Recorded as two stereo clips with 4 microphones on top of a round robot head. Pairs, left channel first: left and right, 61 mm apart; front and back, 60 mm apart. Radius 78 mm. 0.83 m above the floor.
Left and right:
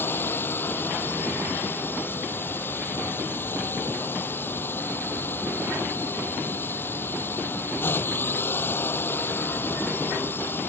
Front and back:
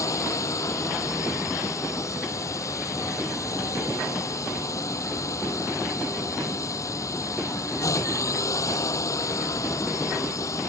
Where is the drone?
35° left.